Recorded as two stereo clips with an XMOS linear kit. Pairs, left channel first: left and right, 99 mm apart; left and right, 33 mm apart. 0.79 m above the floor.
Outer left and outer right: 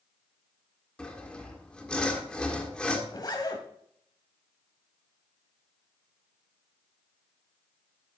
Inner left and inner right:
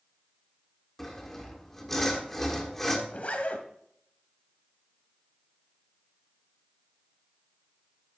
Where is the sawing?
10° left (ahead or behind), 1.6 m.